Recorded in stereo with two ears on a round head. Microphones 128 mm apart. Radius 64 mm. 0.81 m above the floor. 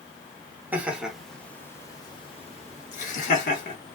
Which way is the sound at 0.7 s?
10° right (ahead or behind).